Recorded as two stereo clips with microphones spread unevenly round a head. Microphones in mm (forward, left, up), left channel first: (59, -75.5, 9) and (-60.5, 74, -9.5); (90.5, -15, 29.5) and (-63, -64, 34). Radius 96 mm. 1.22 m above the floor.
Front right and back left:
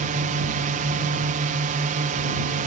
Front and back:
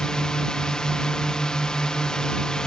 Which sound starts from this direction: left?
A drone, at 0.0 s.